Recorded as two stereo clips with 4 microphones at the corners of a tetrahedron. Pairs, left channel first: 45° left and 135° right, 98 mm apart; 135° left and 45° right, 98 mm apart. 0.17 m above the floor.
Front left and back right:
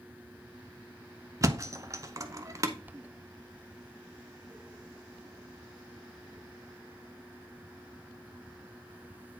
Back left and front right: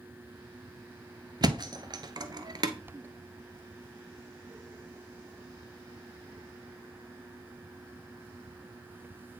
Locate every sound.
1.4 s a thud: 80° right, 0.8 m